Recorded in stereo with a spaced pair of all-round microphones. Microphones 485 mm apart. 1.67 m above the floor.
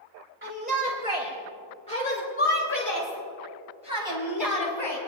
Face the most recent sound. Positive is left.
turn(degrees=70)  # may be behind; listen again after turning